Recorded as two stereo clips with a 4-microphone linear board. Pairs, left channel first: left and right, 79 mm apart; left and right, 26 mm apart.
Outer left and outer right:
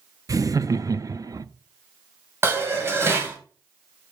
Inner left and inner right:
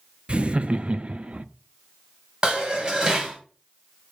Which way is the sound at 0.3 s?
45° right (ahead or behind).